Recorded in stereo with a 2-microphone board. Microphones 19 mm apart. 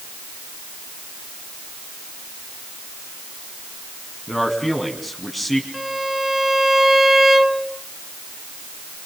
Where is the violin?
20° right (ahead or behind), 1.6 m.